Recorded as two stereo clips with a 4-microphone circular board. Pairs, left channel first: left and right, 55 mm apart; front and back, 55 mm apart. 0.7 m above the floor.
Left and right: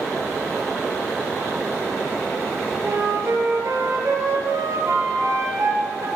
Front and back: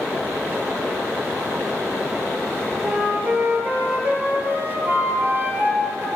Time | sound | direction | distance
2.8 | a flute | 120° right | 4.5 m